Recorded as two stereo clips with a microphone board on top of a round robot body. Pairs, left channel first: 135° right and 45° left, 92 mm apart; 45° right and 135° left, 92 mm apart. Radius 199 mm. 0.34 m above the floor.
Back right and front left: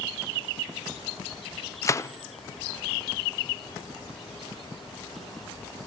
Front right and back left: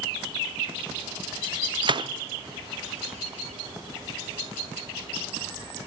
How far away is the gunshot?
About 0.7 m.